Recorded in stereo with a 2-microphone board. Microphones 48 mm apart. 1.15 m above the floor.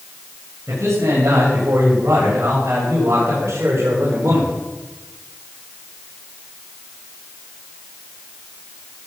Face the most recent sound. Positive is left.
turn(degrees=-55)  # may be behind; listen again after turning